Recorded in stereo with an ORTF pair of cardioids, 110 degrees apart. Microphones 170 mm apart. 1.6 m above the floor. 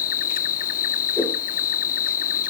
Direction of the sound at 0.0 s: 55° left.